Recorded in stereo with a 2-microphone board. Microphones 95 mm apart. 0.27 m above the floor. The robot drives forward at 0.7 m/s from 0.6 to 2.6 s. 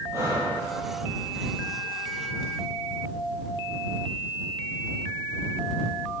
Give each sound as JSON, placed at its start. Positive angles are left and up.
{"t": 0.1, "sound": "breathing", "side_deg": -35, "distance_m": 8.0}